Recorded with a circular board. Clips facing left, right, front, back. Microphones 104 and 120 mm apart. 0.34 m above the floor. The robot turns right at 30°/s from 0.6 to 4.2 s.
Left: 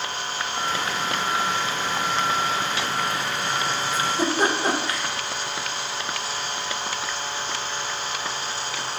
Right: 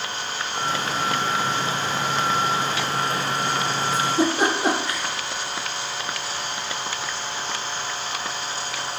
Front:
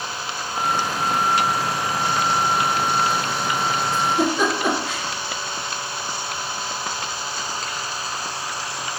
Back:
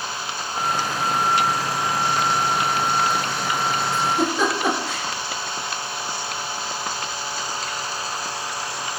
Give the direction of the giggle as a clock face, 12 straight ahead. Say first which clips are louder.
Right 3 dB, front 2 dB; 3 o'clock.